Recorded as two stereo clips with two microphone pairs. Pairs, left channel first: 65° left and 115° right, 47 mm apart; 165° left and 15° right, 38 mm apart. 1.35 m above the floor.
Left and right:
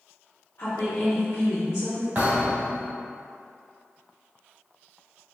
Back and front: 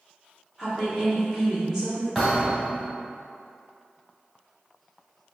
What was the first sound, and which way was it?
A woman speaking, 75° left.